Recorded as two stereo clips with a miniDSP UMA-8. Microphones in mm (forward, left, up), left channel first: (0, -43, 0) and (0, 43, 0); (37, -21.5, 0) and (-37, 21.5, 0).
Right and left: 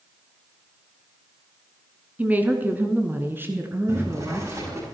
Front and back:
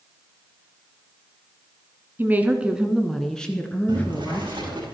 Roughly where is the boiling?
Behind left.